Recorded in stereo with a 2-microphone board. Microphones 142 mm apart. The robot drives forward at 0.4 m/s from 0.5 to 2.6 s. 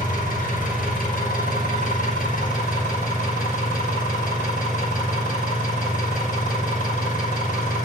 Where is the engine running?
85° left, 5 m.